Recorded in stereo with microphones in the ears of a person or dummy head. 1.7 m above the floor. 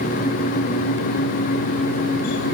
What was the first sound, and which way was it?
Only background noise.